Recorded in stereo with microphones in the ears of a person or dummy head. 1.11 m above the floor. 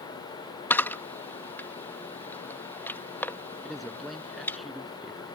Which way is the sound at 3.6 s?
Centre (ahead or behind).